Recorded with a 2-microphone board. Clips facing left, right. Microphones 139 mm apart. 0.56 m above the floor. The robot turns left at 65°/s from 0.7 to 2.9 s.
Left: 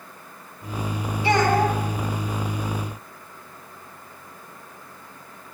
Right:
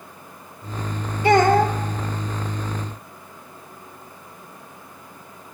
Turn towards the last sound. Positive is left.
turn(degrees=175)